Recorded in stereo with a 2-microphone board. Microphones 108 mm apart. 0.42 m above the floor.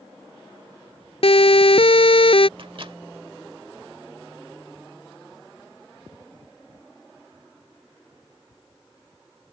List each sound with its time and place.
1.2 s a siren: 60° left (ahead or behind)
2.6 s a microwave: 55° right (ahead or behind)